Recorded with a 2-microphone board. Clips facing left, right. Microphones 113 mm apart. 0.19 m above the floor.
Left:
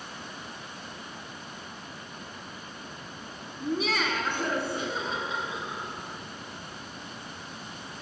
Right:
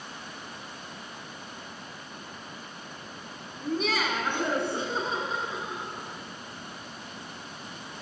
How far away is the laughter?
About 1.2 m.